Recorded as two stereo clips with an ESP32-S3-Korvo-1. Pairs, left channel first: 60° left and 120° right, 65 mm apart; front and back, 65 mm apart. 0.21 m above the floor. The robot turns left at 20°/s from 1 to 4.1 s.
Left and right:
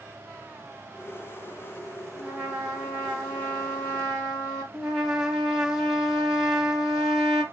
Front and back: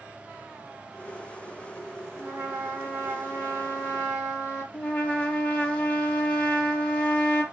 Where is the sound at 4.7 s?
50° right, 0.9 m.